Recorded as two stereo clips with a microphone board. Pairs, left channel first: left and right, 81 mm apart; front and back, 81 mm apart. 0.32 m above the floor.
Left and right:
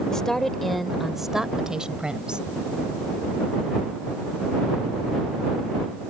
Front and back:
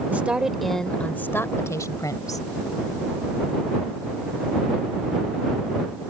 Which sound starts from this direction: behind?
A woman speaking, at 0.1 s.